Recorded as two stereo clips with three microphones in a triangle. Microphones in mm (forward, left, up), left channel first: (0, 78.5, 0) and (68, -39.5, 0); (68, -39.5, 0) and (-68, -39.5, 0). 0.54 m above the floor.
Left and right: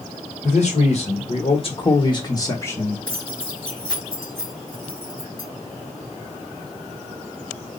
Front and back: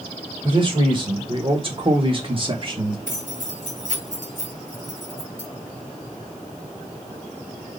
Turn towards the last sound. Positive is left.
turn(degrees=170)